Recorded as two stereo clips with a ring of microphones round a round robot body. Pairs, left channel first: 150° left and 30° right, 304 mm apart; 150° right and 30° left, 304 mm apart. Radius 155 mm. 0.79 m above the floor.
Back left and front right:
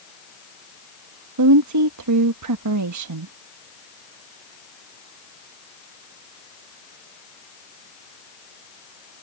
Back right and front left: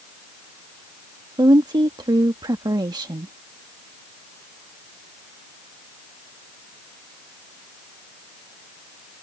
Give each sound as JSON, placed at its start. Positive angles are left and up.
{"t": 1.4, "sound": "a woman speaking", "azimuth_deg": -45}